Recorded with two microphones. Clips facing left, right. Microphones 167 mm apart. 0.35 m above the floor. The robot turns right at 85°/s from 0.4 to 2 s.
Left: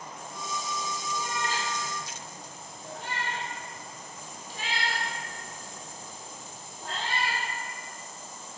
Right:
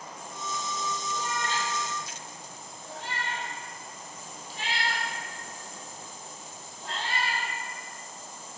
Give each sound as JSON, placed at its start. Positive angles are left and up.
{"t": 1.1, "sound": "a cat meowing", "side_deg": -25, "distance_m": 4.5}